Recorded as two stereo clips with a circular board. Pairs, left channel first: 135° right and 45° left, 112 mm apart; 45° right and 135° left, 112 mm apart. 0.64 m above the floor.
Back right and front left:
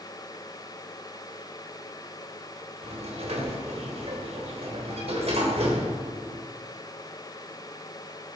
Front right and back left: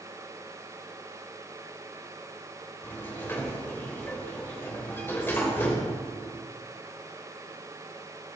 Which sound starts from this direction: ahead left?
A sliding door, at 2.8 s.